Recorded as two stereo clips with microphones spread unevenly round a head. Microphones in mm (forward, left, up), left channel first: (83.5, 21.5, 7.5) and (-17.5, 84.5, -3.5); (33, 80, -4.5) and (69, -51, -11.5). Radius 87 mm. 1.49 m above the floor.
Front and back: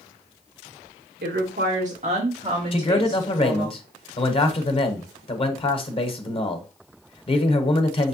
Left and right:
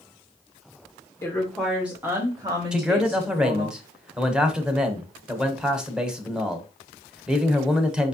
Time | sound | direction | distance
1.2 | a woman speaking | straight behind | 0.9 m
2.7 | a man speaking | 10° left | 1.2 m